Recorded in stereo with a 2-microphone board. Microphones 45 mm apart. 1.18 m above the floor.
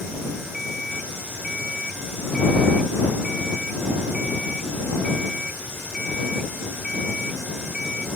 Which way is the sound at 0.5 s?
5° right (ahead or behind).